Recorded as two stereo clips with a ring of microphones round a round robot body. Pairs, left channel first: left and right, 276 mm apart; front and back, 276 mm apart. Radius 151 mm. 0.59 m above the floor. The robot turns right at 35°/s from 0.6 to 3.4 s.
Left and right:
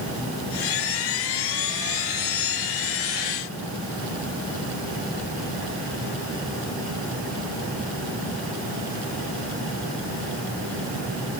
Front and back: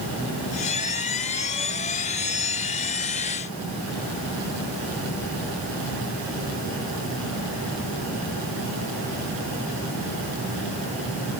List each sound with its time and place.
Only background noise.